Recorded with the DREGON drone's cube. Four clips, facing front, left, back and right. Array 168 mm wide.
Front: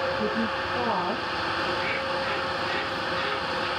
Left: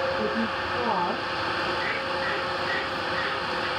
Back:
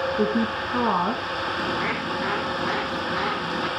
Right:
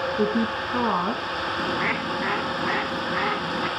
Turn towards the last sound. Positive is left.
turn(degrees=-135)